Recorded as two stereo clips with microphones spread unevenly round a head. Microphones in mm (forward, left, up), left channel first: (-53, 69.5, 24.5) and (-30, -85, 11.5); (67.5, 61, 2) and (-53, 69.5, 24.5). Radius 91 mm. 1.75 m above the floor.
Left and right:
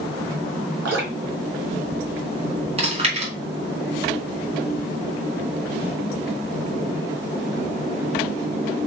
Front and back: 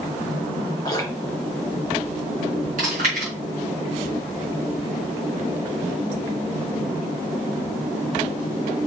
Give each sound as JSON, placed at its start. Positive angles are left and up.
{"t": 0.8, "sound": "dripping", "azimuth_deg": -80, "distance_m": 3.5}
{"t": 2.8, "sound": "chewing", "azimuth_deg": -130, "distance_m": 4.5}